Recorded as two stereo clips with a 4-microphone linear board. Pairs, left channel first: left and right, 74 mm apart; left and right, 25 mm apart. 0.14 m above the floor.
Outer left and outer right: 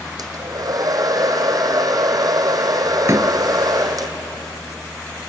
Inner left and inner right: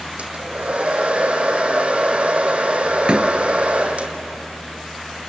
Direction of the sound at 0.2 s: 55° right (ahead or behind).